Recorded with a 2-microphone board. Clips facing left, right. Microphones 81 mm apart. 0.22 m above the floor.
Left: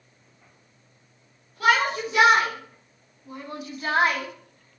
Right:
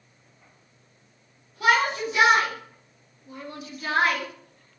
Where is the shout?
60° left (ahead or behind), 2 m; by 4.8 s 10° left (ahead or behind), 1.0 m.